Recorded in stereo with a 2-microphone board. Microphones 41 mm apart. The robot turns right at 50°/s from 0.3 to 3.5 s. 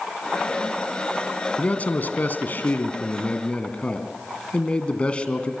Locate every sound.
1.6 s a man speaking: 50° left, 2 m; by 5.5 s 145° left, 2 m